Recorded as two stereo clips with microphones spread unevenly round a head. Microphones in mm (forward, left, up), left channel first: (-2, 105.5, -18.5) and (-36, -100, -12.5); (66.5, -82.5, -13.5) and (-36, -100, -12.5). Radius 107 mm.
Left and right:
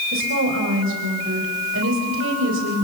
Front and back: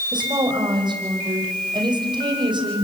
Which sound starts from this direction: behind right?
A woman speaking, at 0.1 s.